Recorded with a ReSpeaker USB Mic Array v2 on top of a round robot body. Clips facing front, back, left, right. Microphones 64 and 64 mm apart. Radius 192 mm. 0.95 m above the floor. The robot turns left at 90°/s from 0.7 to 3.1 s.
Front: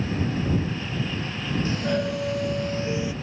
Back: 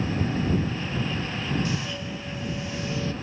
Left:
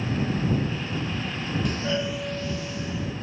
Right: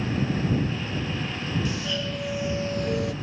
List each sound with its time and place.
1.6 s a doorbell: 50° left; by 3.1 s 80° right